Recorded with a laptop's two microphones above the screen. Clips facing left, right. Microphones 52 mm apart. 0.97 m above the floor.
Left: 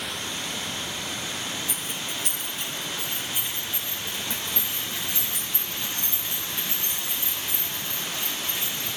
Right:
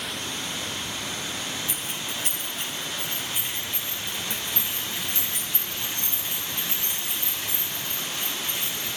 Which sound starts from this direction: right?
Keys jangling, at 1.7 s.